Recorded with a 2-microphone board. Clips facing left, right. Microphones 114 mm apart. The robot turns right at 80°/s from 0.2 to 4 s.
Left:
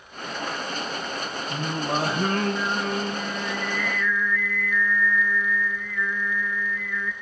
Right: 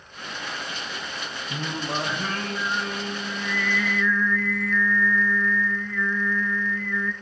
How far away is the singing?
About 2 m.